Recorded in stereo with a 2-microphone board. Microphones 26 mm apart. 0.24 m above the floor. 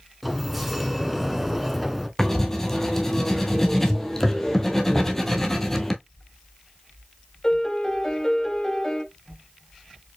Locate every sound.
0.2 s a sliding door: 5° right (ahead or behind), 0.9 m
2.2 s writing: 15° left (ahead or behind), 1.1 m
4.9 s knocking: 15° right (ahead or behind), 1.2 m
7.4 s a piano: 20° left (ahead or behind), 0.7 m